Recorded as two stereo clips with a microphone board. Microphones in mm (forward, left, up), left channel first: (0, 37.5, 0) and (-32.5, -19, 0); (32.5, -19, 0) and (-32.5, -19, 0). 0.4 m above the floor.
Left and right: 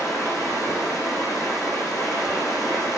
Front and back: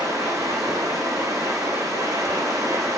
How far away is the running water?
About 7 m.